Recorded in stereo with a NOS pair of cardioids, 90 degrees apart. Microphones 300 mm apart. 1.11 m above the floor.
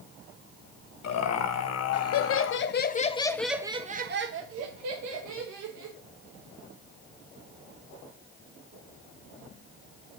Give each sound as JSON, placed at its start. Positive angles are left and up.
{"t": 1.0, "sound": "laughter", "azimuth_deg": 65, "distance_m": 1.4}